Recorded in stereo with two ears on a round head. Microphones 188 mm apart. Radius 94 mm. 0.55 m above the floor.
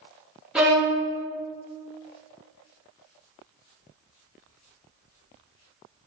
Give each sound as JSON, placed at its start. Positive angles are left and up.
{"t": 0.6, "sound": "a violin", "side_deg": -5, "distance_m": 0.8}